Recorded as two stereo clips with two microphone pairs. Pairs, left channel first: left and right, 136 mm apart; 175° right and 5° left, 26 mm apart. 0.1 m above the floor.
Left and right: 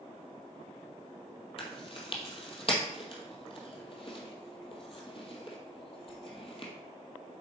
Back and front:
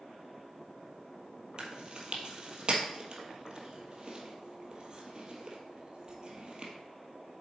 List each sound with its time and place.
1.6 s chewing: 60° left, 1.7 m